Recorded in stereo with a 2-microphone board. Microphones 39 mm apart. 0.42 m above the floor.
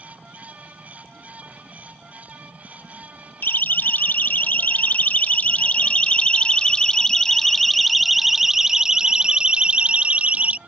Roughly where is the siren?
Left.